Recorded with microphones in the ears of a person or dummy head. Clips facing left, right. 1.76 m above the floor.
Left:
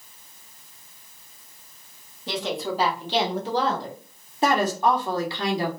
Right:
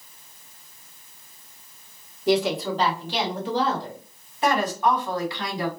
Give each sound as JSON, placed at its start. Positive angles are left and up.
{"t": 2.3, "sound": "a woman speaking", "side_deg": -5, "distance_m": 1.1}
{"t": 4.4, "sound": "a woman speaking", "side_deg": 40, "distance_m": 1.2}